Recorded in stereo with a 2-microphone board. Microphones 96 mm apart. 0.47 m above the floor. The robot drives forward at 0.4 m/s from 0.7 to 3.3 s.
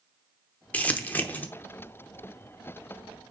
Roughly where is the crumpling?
Centre.